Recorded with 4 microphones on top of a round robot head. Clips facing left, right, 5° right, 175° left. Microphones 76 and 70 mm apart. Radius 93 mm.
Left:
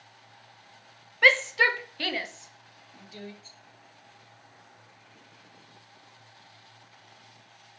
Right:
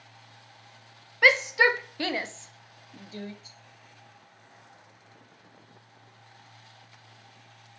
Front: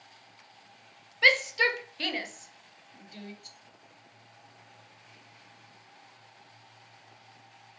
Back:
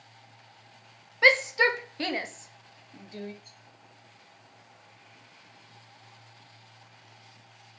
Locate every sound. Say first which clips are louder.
1.2 s a shout: right 1 dB, back 3 dB; 165° right, 1.2 m; by 3.3 s 130° right, 1.9 m
3.4 s a rattle: right 1 dB, front 1 dB; 10° right, 1.1 m